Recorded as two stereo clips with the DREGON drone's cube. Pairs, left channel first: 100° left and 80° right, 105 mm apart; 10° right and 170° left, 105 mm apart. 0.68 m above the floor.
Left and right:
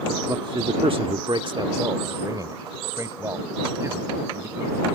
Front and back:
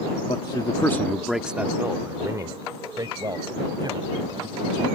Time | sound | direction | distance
0.3 | a man speaking | 35° right | ?